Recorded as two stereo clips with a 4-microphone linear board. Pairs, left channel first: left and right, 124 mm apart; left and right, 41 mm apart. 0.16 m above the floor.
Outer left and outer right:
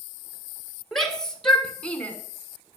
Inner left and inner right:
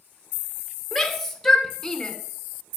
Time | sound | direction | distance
0.9 | a shout | 5° left (ahead or behind) | 2 m